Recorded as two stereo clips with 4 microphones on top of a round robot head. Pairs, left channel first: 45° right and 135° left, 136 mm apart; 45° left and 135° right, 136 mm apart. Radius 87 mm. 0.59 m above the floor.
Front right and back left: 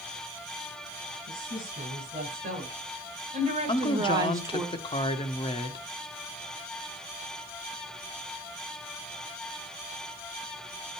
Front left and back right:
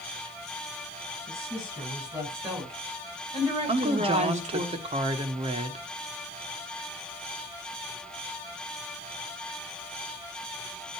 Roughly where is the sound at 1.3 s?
Behind.